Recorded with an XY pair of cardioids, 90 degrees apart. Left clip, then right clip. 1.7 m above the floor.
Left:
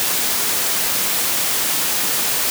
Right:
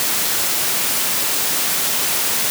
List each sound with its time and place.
Only background noise.